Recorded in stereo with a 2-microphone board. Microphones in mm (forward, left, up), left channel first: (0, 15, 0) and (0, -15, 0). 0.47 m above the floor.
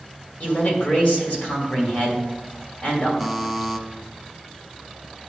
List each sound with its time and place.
0.4 s a man speaking: 55° left (ahead or behind), 2.5 m
3.2 s a buzzer: 10° right (ahead or behind), 0.7 m